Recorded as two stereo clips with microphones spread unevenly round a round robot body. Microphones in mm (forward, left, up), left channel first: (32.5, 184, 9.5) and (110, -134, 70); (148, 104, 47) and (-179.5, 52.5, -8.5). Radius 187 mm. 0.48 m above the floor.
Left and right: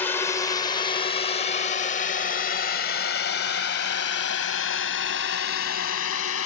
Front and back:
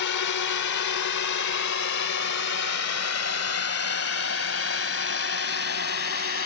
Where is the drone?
30° left; by 6.5 s 60° left.